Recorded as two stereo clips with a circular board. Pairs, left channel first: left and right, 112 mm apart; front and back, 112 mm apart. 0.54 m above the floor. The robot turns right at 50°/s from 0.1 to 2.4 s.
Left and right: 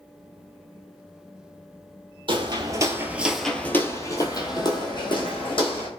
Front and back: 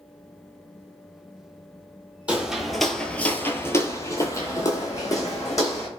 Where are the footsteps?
105° right, 0.7 m; by 5.9 s 60° left, 1.5 m.